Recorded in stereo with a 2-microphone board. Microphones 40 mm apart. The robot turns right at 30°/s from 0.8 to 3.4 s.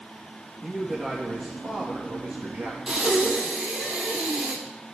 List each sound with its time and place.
0.6 s a man speaking: 170° left, 3 m; by 2.8 s 130° right, 3 m
2.9 s breathing: 15° right (ahead or behind), 3.5 m; by 4.6 s 30° right (ahead or behind), 3.5 m